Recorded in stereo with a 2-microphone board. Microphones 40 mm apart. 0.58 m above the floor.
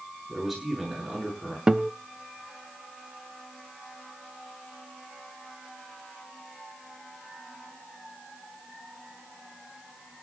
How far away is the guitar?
About 0.7 m.